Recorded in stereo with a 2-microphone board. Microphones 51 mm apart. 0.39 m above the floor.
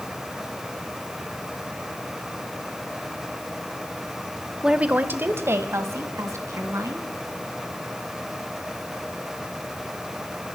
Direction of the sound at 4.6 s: 10° right (ahead or behind).